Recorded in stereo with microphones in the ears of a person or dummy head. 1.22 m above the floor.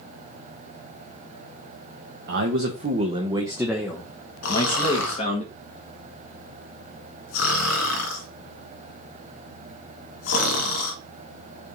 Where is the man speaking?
60° right (ahead or behind), 1.1 m; by 5.4 s 40° left (ahead or behind), 1.5 m.